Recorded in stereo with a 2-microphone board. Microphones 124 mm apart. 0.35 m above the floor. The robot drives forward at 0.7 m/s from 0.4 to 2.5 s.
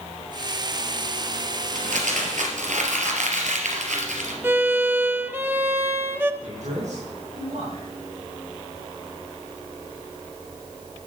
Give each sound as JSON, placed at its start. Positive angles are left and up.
{"t": 1.8, "sound": "crumpling", "side_deg": -80, "distance_m": 3.0}
{"t": 4.4, "sound": "a violin", "side_deg": -20, "distance_m": 0.7}
{"t": 6.4, "sound": "a man speaking", "side_deg": -70, "distance_m": 5.5}